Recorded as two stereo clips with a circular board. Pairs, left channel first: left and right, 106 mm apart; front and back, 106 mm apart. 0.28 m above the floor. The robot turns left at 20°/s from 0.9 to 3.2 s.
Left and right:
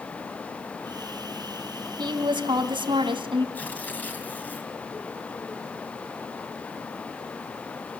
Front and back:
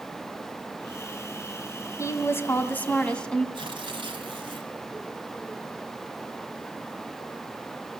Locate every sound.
2.0 s a woman speaking: 55° right, 1.9 m; by 3.5 s 80° right, 1.9 m
3.5 s tearing paper: 160° left, 2.5 m